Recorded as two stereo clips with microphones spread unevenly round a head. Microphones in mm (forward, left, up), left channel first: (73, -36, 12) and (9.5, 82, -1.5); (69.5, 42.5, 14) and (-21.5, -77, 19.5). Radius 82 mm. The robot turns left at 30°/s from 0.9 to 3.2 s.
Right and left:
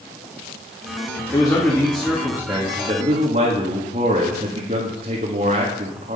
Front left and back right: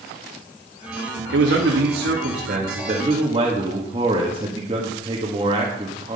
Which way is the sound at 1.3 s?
135° right.